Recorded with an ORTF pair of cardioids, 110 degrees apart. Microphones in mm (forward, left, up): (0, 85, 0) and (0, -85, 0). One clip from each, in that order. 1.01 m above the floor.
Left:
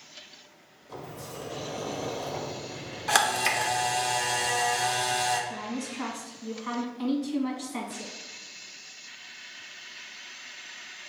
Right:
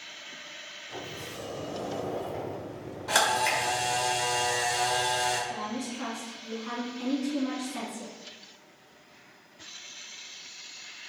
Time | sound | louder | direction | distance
0.9 | a sliding door | left 1 dB | 30° left | 0.7 m
3.1 | a camera shutter | left 1 dB | 55° left | 1.0 m
5.5 | a woman speaking | right 1 dB | 40° left | 1.6 m